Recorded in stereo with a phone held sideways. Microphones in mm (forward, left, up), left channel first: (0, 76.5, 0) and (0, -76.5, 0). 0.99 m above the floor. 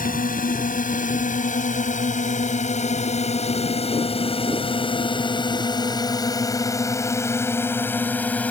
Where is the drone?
65° left (ahead or behind); by 8.5 s 10° left (ahead or behind).